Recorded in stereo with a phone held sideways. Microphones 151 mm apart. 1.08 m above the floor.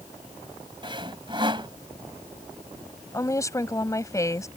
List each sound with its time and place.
0.8 s sawing: 35° right (ahead or behind)
3.1 s a woman speaking: 20° left (ahead or behind)